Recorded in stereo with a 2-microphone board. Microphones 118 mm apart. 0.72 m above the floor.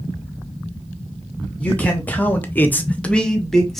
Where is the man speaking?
10° left (ahead or behind), 1.2 m; by 3.8 s centre (ahead or behind), 1.2 m.